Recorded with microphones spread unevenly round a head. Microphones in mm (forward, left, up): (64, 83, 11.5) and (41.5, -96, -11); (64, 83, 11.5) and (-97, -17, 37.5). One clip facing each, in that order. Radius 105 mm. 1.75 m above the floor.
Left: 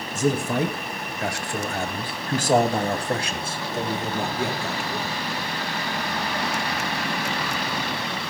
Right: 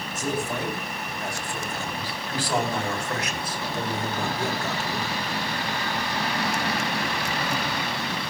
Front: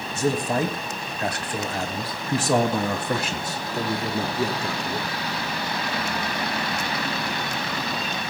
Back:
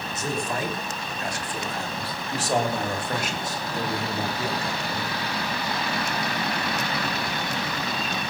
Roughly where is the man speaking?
Left.